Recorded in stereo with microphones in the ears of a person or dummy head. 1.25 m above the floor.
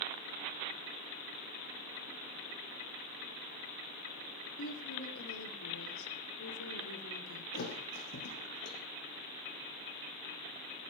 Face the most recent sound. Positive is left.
turn(degrees=55)  # may be behind; listen again after turning